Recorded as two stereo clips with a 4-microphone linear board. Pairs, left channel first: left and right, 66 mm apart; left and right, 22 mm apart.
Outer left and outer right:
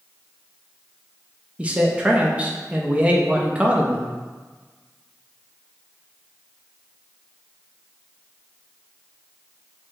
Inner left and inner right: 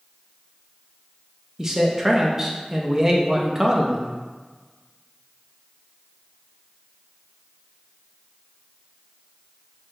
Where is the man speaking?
20° right (ahead or behind), 0.5 m.